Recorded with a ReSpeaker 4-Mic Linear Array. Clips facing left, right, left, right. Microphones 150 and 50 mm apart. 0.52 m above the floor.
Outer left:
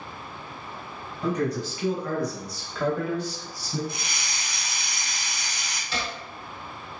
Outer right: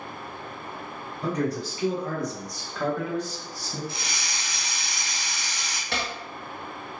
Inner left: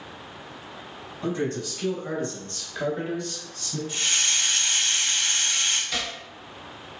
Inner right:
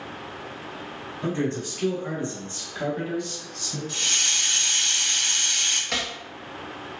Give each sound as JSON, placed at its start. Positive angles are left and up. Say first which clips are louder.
{"t": 1.2, "sound": "a man speaking", "louder": "outer left 1 dB, inner right 1 dB", "side_deg": -35, "distance_m": 1.5}
{"t": 3.9, "sound": "a hiss", "louder": "even, even", "side_deg": 20, "distance_m": 0.7}
{"t": 5.9, "sound": "chopping", "louder": "outer right 1 dB, inner right 2 dB", "side_deg": -65, "distance_m": 0.5}